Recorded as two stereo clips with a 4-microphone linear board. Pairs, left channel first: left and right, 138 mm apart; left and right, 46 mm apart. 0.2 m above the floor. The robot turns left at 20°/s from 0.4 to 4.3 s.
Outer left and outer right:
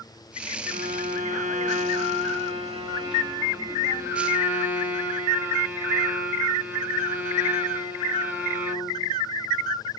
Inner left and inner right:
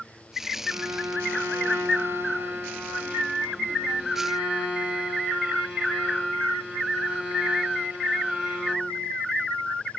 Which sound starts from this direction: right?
A violin, at 0.7 s.